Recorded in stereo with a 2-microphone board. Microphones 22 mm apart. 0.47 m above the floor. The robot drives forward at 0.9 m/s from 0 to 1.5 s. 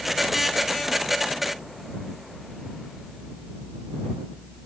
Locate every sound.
Only background noise.